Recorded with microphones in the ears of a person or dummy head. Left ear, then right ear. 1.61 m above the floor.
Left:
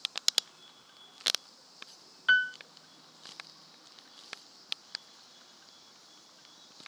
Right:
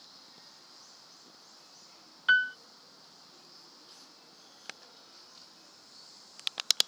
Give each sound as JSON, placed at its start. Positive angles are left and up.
{"t": 2.3, "sound": "a piano", "side_deg": 5}